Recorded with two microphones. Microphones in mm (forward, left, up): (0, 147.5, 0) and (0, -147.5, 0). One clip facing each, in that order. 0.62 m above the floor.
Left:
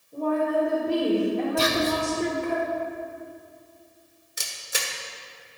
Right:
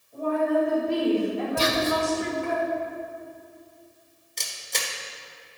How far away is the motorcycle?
No motorcycle in this recording.